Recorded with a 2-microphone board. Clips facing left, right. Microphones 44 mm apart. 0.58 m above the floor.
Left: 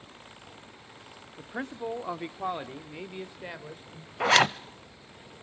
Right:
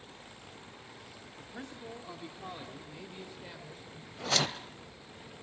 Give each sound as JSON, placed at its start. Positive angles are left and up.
{"t": 1.4, "sound": "a man speaking", "side_deg": 45, "distance_m": 1.0}
{"t": 4.2, "sound": "a zipper", "side_deg": 65, "distance_m": 0.6}